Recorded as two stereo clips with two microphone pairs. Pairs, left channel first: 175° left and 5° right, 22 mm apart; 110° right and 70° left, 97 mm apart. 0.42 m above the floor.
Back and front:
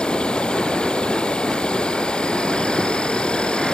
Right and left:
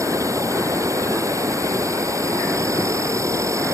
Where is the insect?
130° left.